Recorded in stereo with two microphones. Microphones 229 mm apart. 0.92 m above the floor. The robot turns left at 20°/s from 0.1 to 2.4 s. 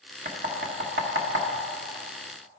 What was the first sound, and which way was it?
Knocking, 45° right (ahead or behind).